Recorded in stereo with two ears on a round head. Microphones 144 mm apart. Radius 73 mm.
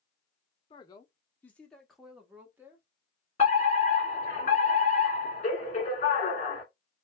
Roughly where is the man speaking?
Left.